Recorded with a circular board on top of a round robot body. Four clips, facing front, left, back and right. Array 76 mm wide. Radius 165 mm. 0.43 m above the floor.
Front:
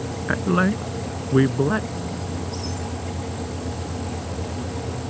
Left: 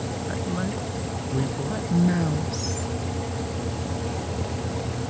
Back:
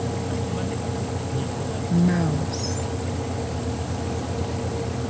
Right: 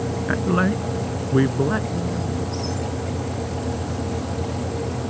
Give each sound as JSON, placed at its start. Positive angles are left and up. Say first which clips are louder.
{"t": 0.3, "sound": "a woman speaking", "louder": "right 10 dB, front 7 dB", "azimuth_deg": -35}
{"t": 1.9, "sound": "a woman speaking", "louder": "left 3 dB, back 8 dB", "azimuth_deg": 145}